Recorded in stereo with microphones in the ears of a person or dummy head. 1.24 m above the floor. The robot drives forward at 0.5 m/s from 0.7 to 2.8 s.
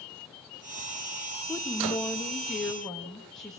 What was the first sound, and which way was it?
A woman speaking, 10° left (ahead or behind).